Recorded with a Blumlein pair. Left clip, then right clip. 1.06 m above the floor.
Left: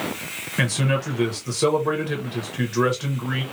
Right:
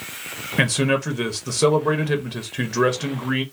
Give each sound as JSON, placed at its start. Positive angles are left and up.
{"t": 0.6, "sound": "a man speaking", "azimuth_deg": -15, "distance_m": 0.9}